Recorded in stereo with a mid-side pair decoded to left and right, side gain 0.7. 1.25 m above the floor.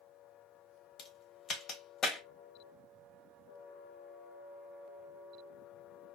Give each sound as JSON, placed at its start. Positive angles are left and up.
{"t": 1.0, "sound": "a crack", "azimuth_deg": 40, "distance_m": 1.3}